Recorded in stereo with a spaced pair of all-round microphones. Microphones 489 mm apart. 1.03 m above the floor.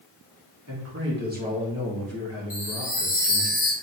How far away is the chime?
About 1.0 m.